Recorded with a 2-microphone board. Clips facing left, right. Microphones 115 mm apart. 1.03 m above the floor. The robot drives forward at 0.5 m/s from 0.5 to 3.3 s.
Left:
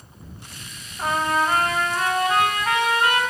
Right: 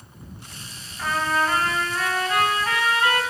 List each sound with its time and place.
1.0 s a trumpet: 25° left (ahead or behind), 3 m; by 3.2 s 20° left (ahead or behind), 4 m